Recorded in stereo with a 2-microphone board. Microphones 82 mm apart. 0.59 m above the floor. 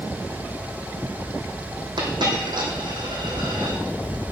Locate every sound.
2.0 s a dropped coin: 60° right (ahead or behind), 2.5 m